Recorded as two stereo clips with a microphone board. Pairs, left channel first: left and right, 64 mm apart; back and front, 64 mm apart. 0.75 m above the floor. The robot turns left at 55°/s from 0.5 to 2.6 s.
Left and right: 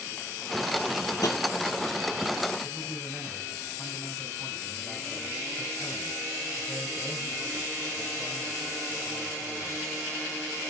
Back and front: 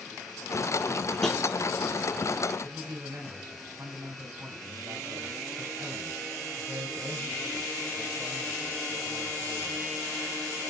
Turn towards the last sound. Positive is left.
turn(degrees=-15)